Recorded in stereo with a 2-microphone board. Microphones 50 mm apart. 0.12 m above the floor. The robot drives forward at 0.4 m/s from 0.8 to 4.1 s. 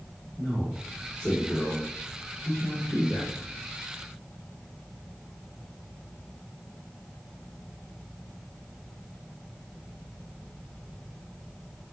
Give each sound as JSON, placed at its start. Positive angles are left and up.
{"t": 0.4, "sound": "a man speaking", "side_deg": 15, "distance_m": 2.0}